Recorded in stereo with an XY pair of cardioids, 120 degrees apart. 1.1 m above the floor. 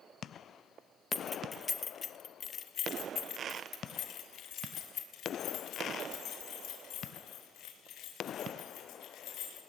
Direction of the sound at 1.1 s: 10° left.